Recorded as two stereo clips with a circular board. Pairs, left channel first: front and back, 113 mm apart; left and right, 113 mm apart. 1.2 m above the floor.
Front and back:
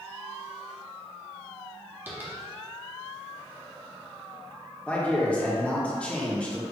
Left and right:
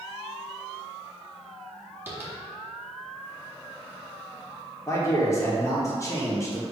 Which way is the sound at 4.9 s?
65° left.